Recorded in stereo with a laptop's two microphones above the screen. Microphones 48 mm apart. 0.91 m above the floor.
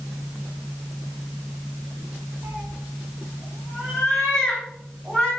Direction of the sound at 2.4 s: 50° right (ahead or behind).